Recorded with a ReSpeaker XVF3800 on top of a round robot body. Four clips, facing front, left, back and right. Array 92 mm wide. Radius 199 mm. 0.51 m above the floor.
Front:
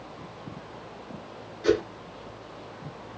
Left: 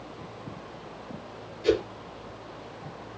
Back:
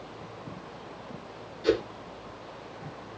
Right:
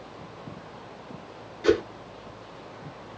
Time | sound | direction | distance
1.6 | a whoosh | 80° right | 3 m